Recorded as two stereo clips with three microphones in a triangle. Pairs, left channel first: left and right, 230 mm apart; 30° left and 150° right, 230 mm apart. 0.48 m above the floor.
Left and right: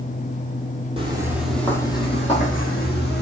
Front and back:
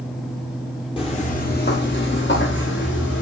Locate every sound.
1.0 s footsteps: 30° right, 0.7 m; by 3.2 s 55° left, 1.2 m